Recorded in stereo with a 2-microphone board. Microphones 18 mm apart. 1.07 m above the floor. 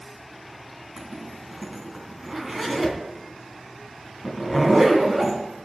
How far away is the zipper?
About 3 m.